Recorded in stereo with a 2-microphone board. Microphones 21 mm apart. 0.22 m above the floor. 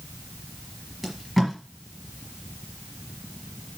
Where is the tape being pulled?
5° left (ahead or behind), 4 m.